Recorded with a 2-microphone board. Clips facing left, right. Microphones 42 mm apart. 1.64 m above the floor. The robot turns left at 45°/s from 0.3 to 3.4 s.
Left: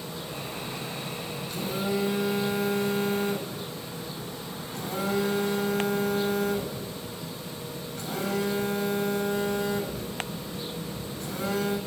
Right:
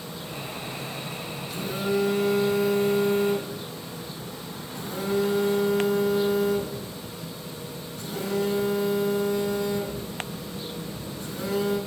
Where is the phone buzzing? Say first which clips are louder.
Right 3 dB; 175° right, 4.5 m; by 11.8 s 100° left, 4.5 m.